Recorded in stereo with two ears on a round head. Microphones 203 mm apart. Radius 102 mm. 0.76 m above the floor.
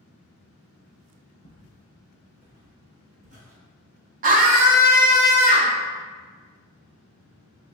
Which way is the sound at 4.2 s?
35° right (ahead or behind).